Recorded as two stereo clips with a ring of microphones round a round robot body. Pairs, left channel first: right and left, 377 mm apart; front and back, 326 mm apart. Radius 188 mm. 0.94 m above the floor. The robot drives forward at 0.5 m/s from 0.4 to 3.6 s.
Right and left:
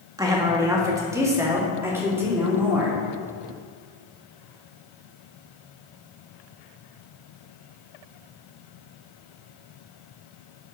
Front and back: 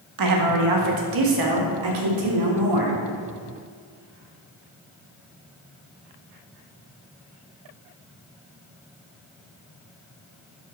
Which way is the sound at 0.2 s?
170° left.